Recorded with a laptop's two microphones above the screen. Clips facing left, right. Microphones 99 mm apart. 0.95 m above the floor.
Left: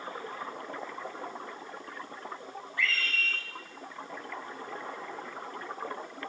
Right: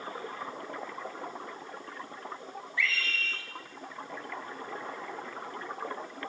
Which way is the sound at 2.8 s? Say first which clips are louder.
Even; 50° left (ahead or behind).